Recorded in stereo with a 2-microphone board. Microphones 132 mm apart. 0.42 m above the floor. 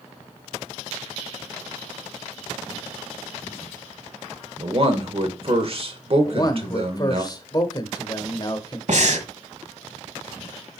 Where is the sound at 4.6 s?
45° right (ahead or behind), 1.2 m.